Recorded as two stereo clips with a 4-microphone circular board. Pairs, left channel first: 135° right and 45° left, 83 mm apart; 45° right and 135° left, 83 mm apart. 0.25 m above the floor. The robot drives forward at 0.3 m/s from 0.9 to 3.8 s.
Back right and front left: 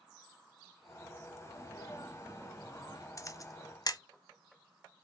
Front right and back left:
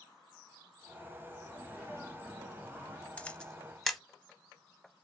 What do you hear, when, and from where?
1.4 s a sneeze: 165° right, 1.7 m; by 3.1 s 170° right, 2 m
3.2 s a camera shutter: 110° right, 0.6 m; by 4.0 s 130° right, 0.7 m